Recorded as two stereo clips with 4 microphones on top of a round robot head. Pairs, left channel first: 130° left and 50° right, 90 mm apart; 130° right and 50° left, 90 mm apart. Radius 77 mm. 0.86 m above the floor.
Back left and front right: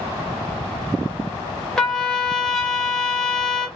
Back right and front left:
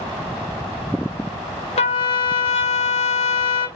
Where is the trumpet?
145° right, 2 m.